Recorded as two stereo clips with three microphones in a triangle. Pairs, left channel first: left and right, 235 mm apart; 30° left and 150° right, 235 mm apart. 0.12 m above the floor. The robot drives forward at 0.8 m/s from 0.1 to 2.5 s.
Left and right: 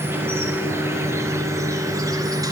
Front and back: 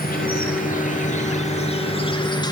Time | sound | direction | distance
0.0 | an insect | 10° right | 4 m